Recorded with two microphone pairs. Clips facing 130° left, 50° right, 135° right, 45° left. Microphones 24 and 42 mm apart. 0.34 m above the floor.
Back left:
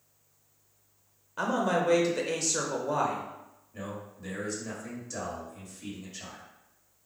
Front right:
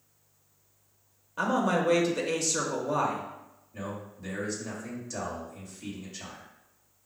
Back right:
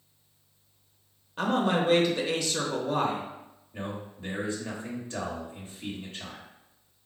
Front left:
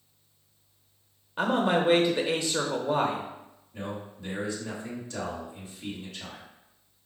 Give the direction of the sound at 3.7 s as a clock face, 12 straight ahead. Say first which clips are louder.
Front right 1 dB, even; 5 o'clock.